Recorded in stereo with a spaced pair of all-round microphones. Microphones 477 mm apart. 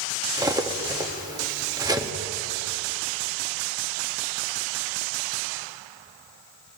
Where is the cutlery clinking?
10° right (ahead or behind), 0.7 m.